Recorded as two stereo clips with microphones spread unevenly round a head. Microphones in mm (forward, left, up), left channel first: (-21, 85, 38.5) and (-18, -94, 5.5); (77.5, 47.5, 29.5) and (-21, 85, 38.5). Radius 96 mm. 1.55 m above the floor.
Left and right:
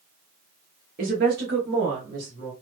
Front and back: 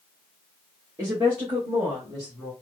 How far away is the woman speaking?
About 1.1 m.